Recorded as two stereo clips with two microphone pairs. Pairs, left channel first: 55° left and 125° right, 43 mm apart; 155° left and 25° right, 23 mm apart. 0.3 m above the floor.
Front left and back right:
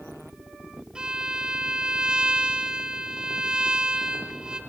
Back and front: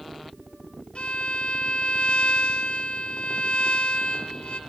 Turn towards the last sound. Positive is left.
turn(degrees=165)